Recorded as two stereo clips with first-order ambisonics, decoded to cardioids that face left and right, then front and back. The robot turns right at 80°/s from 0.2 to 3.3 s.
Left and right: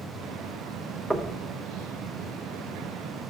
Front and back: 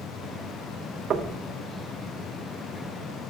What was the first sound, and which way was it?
Knocking, 175° right.